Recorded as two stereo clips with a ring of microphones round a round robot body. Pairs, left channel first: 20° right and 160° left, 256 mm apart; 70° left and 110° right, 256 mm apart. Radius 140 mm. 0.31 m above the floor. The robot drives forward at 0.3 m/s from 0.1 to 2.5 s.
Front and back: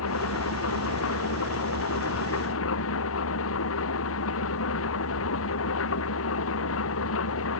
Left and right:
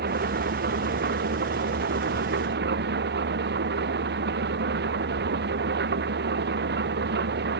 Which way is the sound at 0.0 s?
60° right.